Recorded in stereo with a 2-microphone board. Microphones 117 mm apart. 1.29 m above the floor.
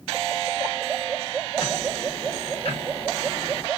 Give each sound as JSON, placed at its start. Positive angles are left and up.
{"t": 1.6, "sound": "ticking", "side_deg": 60, "distance_m": 1.9}